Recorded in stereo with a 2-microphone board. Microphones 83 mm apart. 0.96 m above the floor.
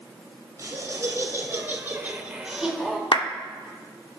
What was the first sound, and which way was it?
Laughter, 35° right (ahead or behind).